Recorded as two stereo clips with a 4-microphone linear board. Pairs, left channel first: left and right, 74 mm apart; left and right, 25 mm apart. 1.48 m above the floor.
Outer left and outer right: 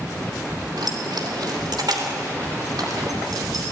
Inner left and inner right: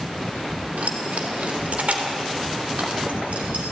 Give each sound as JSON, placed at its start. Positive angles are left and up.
{"t": 0.8, "sound": "keys jangling", "side_deg": -80, "distance_m": 3.0}